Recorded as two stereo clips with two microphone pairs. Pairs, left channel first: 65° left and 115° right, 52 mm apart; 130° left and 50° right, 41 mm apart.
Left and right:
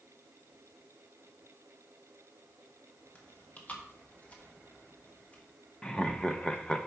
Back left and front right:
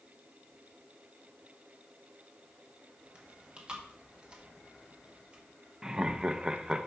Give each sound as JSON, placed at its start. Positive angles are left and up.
{"t": 3.1, "sound": "chewing", "azimuth_deg": 15, "distance_m": 1.4}
{"t": 5.8, "sound": "laughter", "azimuth_deg": 10, "distance_m": 0.5}